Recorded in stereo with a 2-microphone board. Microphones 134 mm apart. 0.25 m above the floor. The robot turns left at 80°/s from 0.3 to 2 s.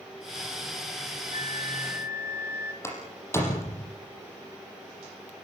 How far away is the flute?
About 0.5 m.